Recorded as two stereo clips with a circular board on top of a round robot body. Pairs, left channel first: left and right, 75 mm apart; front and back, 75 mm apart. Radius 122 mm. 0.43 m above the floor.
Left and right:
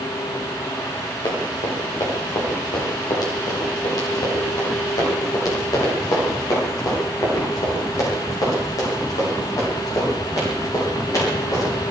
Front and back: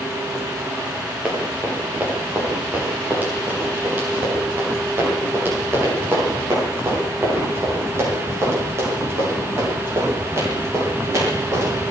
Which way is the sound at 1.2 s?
110° left.